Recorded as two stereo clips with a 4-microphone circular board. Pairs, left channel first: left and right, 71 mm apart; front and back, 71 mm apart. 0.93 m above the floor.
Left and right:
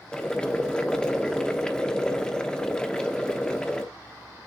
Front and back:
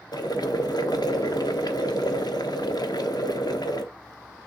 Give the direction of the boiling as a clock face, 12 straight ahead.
12 o'clock.